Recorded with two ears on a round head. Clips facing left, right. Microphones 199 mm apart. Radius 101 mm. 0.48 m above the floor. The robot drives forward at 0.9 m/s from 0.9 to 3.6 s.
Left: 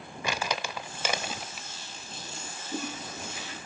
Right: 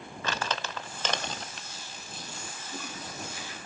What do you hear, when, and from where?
0.2 s crumpling: 10° left (ahead or behind), 0.5 m; by 1.7 s 5° left (ahead or behind), 1.2 m
2.6 s a toilet flushing: 75° left (ahead or behind), 4.5 m; by 3.6 s 65° left (ahead or behind), 5 m